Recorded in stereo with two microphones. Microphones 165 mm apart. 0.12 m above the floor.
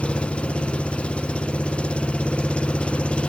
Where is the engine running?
5° left (ahead or behind).